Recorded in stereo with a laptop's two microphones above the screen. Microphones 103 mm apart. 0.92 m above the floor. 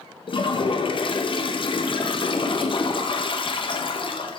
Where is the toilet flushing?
50° left (ahead or behind), 0.6 m.